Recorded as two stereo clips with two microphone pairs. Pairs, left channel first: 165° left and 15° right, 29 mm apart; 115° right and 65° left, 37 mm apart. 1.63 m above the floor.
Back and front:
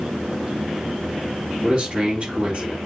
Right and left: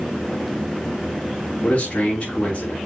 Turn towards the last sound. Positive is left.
turn(degrees=-75)